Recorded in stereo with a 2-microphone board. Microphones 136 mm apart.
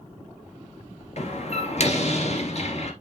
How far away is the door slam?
About 2.5 m.